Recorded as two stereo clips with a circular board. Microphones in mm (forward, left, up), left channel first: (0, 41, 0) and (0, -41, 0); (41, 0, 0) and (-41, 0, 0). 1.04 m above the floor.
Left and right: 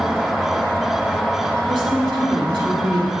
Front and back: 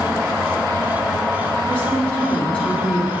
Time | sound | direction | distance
1.7 | a woman speaking | 70° right | 2 m